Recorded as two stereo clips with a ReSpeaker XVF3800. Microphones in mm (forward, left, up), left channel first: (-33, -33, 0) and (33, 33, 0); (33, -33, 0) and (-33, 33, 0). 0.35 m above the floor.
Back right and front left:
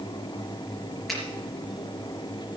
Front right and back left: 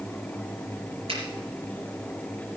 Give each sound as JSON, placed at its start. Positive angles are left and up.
{"t": 1.1, "sound": "a finger snap", "azimuth_deg": 135, "distance_m": 4.5}